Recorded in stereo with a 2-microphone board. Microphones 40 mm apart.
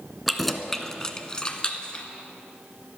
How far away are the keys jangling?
About 1.1 m.